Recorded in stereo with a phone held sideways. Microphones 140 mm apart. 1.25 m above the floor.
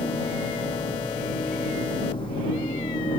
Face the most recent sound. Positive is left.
turn(degrees=40)  # may be behind; listen again after turning